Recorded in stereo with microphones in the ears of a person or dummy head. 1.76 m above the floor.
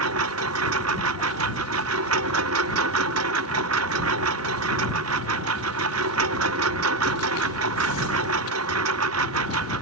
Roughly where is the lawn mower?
Right.